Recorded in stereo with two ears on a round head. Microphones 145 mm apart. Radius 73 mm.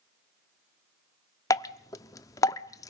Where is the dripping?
20° left (ahead or behind), 0.6 m.